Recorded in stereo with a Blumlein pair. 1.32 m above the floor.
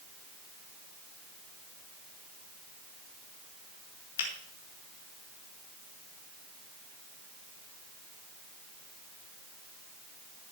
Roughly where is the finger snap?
Ahead left.